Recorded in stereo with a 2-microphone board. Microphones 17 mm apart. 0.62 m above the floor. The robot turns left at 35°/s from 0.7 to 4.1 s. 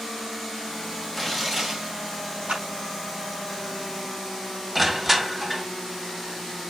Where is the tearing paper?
5° right (ahead or behind), 2.5 m; by 1.9 s 35° right (ahead or behind), 2.5 m.